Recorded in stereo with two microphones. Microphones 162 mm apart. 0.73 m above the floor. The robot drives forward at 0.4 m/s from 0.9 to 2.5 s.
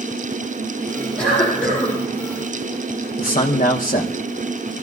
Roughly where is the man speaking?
Left.